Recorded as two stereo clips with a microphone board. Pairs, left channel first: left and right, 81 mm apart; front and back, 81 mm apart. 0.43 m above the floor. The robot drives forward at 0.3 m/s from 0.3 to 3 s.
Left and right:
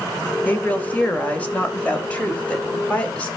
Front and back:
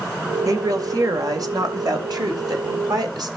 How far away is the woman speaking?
About 2 m.